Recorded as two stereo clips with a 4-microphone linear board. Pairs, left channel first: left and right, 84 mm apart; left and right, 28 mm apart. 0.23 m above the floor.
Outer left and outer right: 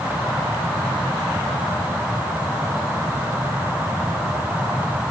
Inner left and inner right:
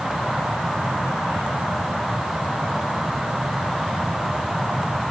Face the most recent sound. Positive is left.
No sound to turn to.